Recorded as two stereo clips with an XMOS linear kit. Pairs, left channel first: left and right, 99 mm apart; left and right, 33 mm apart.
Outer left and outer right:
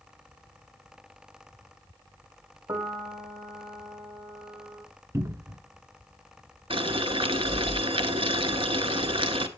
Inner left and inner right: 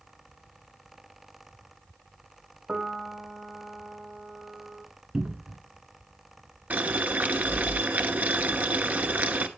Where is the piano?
40° right (ahead or behind), 0.7 m.